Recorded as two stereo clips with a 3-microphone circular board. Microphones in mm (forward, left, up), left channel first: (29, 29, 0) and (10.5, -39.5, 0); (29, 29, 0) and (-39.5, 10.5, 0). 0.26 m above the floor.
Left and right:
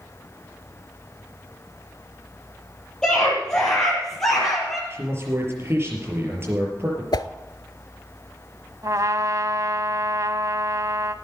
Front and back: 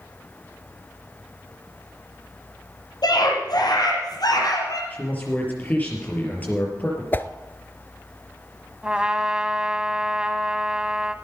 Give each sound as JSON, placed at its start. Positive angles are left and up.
{"t": 3.0, "sound": "a scream", "azimuth_deg": -5, "distance_m": 6.0}
{"t": 4.9, "sound": "a man speaking", "azimuth_deg": -50, "distance_m": 5.0}
{"t": 7.1, "sound": "a whoosh", "azimuth_deg": 75, "distance_m": 0.6}
{"t": 8.8, "sound": "a trumpet", "azimuth_deg": -90, "distance_m": 0.7}